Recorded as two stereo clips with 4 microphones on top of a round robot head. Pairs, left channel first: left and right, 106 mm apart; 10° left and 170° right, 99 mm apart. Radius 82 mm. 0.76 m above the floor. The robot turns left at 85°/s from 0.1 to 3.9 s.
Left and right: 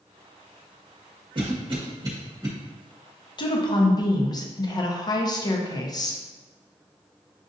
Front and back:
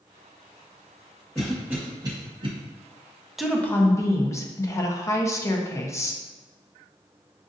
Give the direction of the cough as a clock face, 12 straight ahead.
2 o'clock.